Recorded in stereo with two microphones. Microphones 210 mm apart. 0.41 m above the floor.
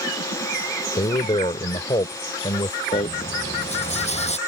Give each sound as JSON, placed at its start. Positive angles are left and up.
{"t": 1.0, "sound": "a man speaking", "side_deg": 25}
{"t": 2.9, "sound": "a rattle", "side_deg": 30}